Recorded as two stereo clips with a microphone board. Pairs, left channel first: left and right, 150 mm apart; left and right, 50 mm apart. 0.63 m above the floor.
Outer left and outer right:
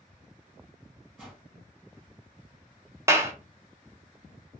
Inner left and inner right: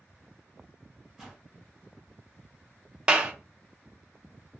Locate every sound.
1.2 s a whoosh: 5° right (ahead or behind), 1.9 m
3.1 s a clap: 20° right (ahead or behind), 0.5 m